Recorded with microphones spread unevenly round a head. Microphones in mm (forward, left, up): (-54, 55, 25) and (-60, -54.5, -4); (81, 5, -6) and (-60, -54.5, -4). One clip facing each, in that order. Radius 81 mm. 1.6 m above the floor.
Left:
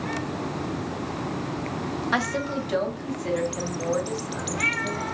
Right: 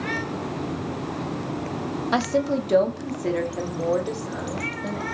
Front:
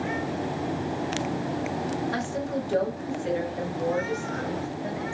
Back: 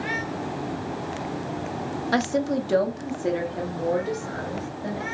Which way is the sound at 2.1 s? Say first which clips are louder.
Right 6 dB, back 6 dB; 165° right.